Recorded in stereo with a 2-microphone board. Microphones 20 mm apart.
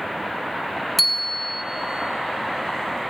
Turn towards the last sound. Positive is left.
turn(degrees=0)  # may be behind; listen again after turning